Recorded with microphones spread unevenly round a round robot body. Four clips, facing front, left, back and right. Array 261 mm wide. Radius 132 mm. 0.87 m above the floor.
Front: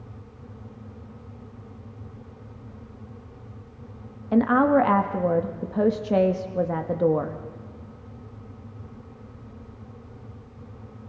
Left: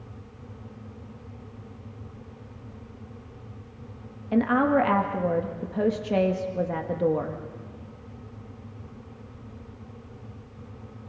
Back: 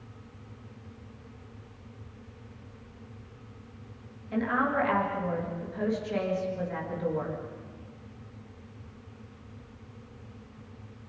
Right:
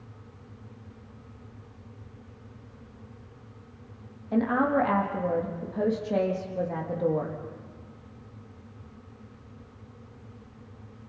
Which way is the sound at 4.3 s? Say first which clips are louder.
Left 3 dB, front 9 dB; 15° left.